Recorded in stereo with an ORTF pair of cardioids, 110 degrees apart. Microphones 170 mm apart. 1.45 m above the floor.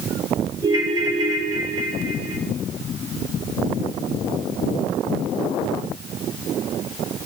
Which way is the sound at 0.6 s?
20° right.